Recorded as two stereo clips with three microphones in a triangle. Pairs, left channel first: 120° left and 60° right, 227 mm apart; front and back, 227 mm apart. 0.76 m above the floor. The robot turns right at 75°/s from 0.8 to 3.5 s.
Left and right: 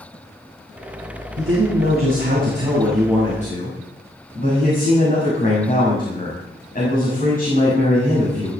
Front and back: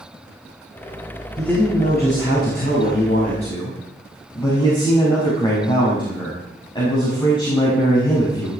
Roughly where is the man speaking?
Right.